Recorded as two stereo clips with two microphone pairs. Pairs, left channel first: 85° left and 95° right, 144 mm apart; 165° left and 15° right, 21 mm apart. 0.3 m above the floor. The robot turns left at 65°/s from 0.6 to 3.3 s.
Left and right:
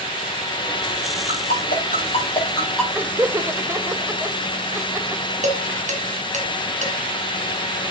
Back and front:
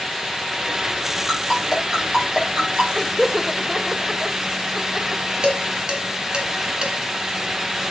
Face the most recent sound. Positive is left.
turn(degrees=-65)